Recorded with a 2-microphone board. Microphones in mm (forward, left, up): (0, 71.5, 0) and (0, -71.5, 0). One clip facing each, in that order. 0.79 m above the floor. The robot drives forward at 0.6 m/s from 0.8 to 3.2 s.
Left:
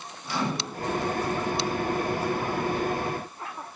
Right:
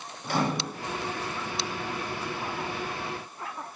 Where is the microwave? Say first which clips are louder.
Right 2 dB; 50° right (ahead or behind), 0.6 m.